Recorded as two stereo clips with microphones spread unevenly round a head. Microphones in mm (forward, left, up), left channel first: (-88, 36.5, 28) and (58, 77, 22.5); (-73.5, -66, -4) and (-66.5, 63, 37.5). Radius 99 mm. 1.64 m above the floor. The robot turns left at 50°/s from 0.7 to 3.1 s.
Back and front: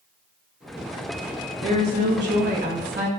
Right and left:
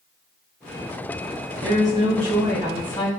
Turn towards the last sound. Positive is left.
turn(degrees=-35)